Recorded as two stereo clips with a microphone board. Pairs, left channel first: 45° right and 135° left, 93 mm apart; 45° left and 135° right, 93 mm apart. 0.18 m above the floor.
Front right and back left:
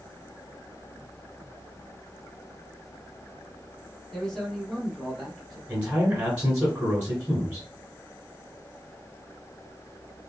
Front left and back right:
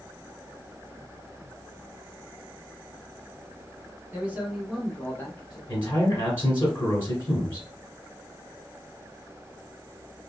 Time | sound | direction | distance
4.1 | a man speaking | 125° right | 1.2 m
5.7 | a man speaking | 80° left | 1.3 m